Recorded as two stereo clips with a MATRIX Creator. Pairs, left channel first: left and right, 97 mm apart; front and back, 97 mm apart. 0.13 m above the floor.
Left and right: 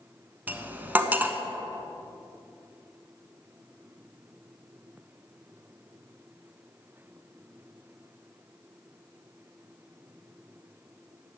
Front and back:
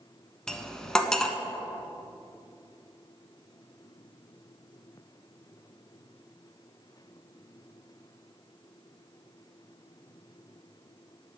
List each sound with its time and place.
0.5 s cutlery clinking: 70° right, 0.6 m